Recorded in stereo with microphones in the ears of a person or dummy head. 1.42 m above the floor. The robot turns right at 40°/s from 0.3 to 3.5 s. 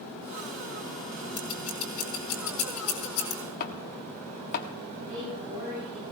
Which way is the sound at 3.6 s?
50° left (ahead or behind).